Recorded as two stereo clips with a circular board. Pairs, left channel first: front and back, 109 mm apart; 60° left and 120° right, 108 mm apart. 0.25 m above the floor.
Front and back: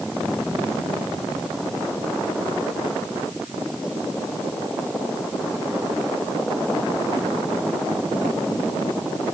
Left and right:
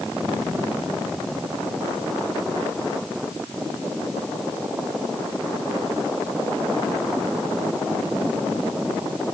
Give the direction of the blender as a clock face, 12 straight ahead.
No blender in this recording.